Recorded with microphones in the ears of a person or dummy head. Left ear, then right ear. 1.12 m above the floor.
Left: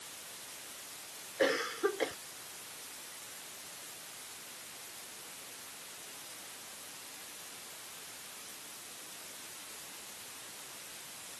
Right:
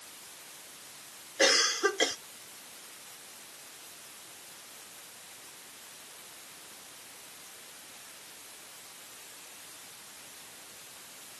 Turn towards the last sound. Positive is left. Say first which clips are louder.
# right 6 dB
turn(degrees=-75)  # may be behind; listen again after turning